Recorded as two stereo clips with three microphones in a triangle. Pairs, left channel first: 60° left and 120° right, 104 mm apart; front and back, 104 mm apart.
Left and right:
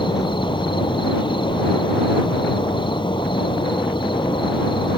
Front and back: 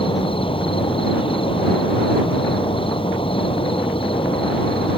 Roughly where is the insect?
Ahead left.